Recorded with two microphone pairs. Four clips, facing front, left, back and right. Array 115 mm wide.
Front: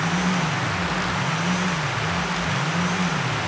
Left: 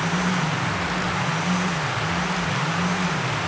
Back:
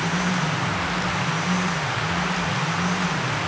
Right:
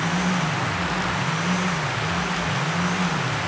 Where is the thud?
No thud in this recording.